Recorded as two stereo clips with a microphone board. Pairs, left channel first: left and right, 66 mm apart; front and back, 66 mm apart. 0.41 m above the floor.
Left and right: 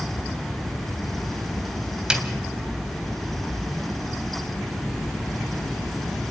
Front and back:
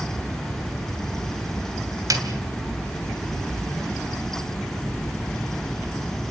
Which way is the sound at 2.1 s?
165° right.